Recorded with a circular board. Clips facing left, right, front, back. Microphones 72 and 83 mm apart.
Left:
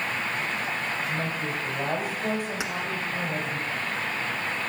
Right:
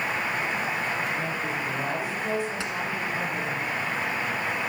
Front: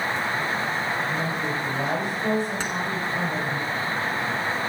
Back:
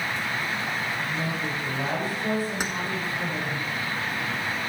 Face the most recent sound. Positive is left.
turn(degrees=130)